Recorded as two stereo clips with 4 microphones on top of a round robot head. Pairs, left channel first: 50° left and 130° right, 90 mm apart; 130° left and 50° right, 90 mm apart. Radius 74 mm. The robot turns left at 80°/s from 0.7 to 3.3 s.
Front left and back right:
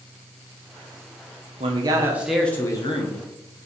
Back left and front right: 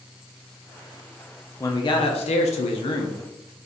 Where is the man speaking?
165° right, 0.5 m; by 3.2 s 70° left, 0.5 m.